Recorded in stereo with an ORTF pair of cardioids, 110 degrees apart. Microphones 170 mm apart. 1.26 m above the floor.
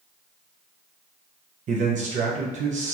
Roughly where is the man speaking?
Ahead right.